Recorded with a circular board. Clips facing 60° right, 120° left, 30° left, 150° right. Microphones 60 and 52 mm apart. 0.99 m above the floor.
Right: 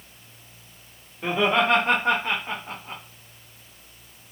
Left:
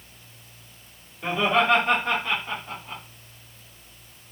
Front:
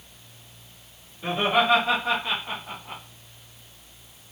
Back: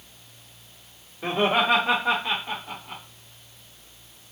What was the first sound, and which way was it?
Laughter, 115° right.